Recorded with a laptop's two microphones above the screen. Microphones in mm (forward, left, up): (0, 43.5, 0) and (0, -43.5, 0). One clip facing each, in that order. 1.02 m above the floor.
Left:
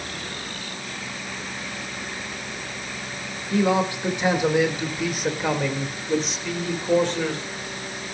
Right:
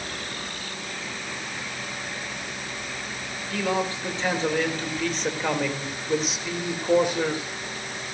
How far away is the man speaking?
About 3.5 m.